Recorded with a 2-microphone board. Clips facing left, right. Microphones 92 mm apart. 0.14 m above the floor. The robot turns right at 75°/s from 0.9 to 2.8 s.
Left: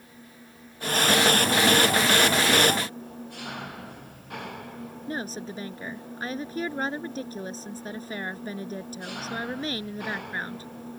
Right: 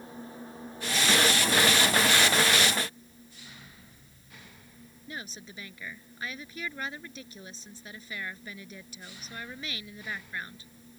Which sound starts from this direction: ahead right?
An engine running, at 0.0 s.